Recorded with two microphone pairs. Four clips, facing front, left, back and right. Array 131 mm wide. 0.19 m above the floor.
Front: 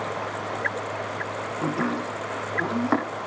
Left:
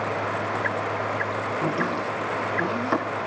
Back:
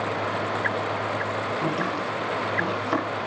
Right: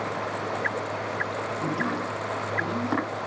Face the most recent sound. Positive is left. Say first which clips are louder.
# left 2 dB, even
turn(degrees=15)